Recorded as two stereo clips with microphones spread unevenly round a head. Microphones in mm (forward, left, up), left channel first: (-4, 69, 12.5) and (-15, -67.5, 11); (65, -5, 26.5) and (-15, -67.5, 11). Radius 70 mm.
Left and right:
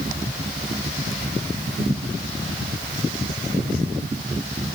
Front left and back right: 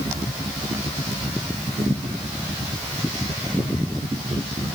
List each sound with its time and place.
Only background noise.